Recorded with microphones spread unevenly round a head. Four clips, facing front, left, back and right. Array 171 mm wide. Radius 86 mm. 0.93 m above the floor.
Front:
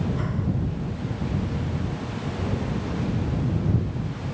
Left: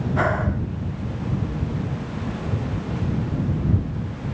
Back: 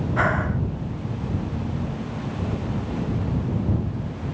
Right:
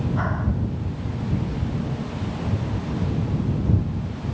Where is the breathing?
125° left.